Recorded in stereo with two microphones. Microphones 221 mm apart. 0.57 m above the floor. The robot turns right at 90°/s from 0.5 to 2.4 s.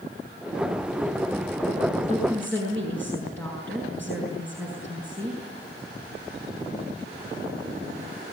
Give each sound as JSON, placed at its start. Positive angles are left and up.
{"t": 2.1, "sound": "a woman speaking", "side_deg": 35, "distance_m": 6.5}